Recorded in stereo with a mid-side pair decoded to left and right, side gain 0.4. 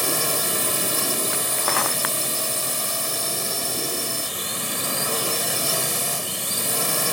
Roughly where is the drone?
Ahead.